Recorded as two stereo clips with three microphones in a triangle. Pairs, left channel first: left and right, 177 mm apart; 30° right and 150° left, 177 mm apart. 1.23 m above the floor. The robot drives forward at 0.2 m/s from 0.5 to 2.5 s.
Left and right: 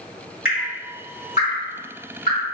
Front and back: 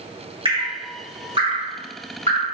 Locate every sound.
0.5 s dripping: 95° left, 1.5 m; by 2.5 s 110° left, 1.6 m